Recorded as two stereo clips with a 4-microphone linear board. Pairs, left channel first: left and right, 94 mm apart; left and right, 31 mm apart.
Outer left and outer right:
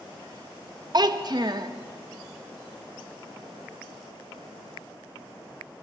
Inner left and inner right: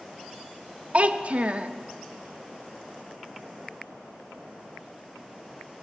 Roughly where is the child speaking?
Right.